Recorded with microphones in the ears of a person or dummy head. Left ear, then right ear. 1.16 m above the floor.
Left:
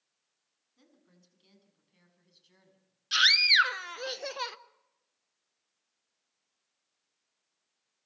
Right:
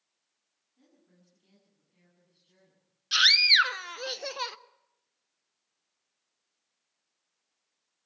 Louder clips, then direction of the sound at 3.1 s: Right 2 dB; centre (ahead or behind).